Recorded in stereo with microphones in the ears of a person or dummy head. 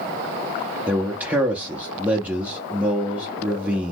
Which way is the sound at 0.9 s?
5° right (ahead or behind).